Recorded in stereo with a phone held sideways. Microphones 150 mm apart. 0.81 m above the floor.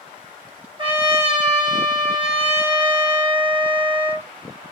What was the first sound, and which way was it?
A trumpet, 35° right (ahead or behind).